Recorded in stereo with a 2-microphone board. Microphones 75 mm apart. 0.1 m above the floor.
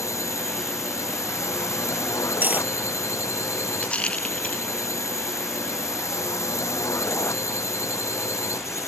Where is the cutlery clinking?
20° right (ahead or behind).